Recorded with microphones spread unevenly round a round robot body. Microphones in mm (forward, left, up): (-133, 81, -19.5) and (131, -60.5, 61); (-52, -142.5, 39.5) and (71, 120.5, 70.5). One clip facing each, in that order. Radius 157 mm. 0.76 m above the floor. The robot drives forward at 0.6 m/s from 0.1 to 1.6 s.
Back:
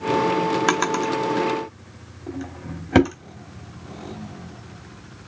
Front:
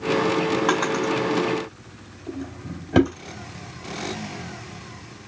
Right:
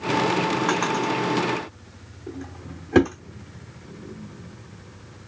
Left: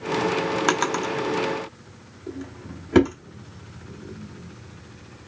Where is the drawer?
105° left, 0.6 m; by 3.2 s 140° left, 0.9 m.